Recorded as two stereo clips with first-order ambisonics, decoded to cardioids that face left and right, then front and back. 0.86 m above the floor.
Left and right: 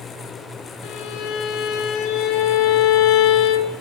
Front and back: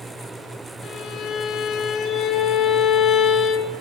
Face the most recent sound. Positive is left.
turn(degrees=60)